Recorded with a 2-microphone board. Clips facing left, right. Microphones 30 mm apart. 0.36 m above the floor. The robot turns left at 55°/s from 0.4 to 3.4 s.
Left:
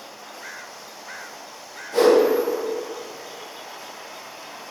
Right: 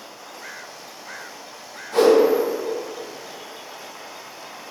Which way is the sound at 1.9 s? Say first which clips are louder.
Right 1 dB; 45° right (ahead or behind).